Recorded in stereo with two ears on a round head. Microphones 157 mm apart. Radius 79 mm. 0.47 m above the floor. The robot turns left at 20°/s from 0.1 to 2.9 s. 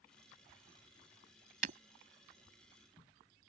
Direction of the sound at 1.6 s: 50° right (ahead or behind).